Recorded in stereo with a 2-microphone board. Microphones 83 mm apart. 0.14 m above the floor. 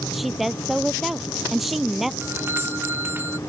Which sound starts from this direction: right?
A doorbell, at 2.2 s.